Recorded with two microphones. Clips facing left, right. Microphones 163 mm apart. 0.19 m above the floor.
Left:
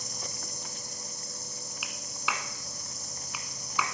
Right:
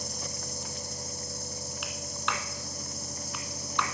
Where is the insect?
10° right (ahead or behind), 3 m.